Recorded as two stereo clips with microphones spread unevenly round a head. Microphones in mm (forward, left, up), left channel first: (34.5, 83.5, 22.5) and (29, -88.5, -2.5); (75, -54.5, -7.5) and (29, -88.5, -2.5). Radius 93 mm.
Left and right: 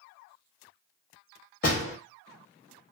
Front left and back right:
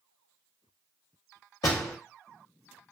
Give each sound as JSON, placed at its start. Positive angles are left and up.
{"t": 1.6, "sound": "a door slam", "azimuth_deg": 50, "distance_m": 1.4}